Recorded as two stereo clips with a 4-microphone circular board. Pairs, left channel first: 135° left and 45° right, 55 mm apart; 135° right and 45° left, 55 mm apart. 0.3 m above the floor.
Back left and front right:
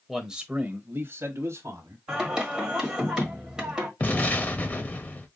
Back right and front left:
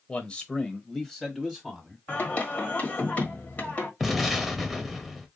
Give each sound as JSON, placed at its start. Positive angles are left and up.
{"t": 0.1, "sound": "a man speaking", "azimuth_deg": -125, "distance_m": 0.9}
{"t": 2.1, "sound": "singing", "azimuth_deg": -110, "distance_m": 1.4}
{"t": 4.0, "sound": "an explosion", "azimuth_deg": 130, "distance_m": 0.8}